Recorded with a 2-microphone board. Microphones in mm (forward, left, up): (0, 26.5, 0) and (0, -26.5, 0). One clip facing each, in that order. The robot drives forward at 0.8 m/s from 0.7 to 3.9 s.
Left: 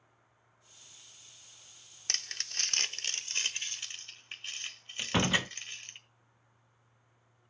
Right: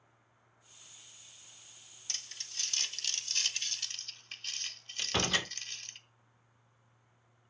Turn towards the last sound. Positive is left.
turn(degrees=20)  # may be behind; listen again after turning